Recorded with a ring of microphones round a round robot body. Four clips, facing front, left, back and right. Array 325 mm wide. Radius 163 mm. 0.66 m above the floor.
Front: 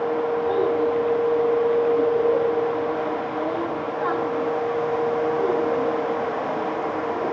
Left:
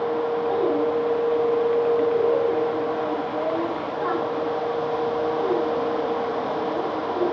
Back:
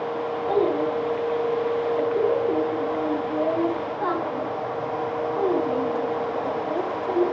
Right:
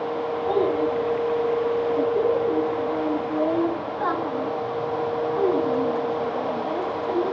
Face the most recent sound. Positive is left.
turn(degrees=-105)